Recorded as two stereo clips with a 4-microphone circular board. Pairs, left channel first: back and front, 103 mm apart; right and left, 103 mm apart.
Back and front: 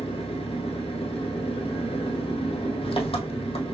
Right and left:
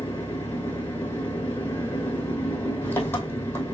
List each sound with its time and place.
0.0 s an engine running: 160° right, 2 m